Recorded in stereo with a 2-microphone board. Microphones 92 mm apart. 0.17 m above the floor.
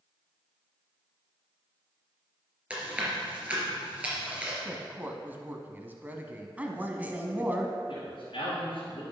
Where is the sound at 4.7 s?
20° right (ahead or behind), 1.0 m.